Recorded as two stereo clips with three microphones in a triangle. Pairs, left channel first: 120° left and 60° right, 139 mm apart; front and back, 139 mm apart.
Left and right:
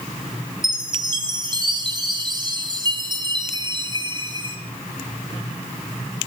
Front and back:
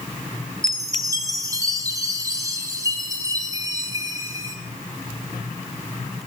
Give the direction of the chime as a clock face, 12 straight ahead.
4 o'clock.